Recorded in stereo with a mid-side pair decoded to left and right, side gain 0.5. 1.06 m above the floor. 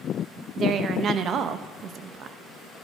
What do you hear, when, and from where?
0.6 s a woman speaking: 55° right, 0.8 m